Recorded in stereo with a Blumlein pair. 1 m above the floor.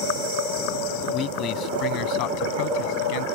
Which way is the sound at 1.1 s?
30° left.